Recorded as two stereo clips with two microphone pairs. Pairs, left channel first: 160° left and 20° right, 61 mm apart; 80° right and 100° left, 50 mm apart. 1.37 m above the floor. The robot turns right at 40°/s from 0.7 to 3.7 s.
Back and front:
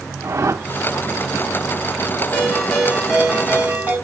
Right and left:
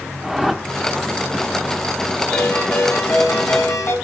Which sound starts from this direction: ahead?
A whoosh, at 0.2 s.